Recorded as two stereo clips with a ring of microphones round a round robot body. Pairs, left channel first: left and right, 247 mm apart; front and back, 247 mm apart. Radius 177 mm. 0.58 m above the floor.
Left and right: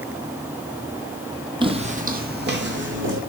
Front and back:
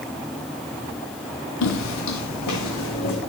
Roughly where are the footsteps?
Ahead.